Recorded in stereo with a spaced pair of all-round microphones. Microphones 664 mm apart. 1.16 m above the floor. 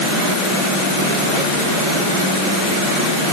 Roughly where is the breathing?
No breathing in this recording.